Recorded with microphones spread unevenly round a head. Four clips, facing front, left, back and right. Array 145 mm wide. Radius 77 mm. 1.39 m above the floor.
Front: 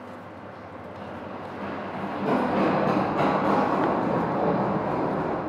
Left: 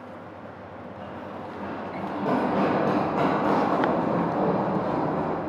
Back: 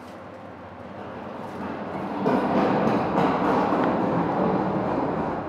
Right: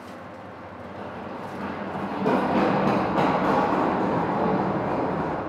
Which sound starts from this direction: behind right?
Running footsteps, at 1.0 s.